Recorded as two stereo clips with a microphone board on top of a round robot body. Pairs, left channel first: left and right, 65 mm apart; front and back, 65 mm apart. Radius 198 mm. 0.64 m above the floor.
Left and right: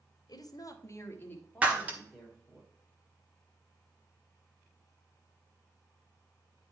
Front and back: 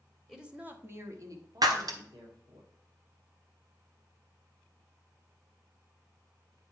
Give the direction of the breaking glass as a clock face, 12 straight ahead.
5 o'clock.